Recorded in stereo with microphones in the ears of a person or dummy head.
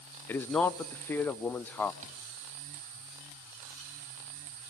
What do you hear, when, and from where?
0.3 s a man speaking: 10° left (ahead or behind), 0.8 m
2.0 s a thud: 35° right (ahead or behind), 4 m